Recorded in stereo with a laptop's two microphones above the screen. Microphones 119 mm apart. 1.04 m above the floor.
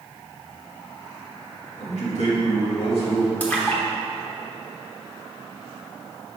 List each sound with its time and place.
1.8 s a man speaking: 75° left (ahead or behind), 1.8 m; by 3.3 s 55° left (ahead or behind), 1.9 m
3.4 s a splash: 15° left (ahead or behind), 0.9 m